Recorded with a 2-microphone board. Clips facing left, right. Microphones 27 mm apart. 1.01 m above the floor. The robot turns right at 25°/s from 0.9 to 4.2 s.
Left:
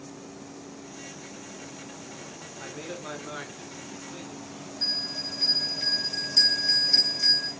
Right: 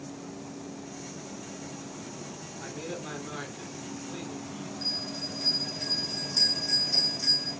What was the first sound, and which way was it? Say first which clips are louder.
A man speaking: even; 150° left.